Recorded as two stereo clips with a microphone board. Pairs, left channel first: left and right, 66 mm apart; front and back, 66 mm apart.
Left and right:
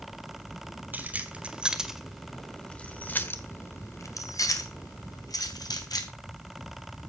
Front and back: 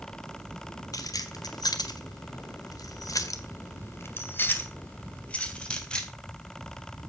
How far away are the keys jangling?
About 2 m.